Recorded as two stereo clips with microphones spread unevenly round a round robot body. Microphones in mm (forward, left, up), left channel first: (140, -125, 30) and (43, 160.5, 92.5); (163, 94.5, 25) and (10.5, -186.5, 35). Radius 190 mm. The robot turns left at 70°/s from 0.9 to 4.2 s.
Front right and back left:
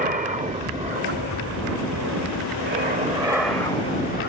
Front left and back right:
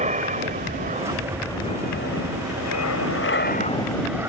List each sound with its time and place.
0.0 s an aircraft: straight behind; by 4.3 s 35° right